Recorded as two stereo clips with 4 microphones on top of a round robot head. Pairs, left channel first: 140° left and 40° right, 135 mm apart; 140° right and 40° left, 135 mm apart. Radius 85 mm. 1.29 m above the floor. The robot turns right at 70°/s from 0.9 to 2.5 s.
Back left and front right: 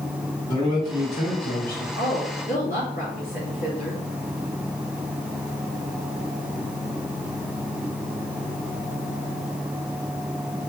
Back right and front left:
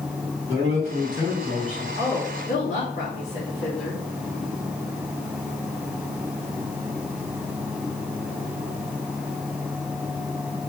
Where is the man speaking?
85° left, 3.5 m; by 1.9 s 150° left, 3.5 m.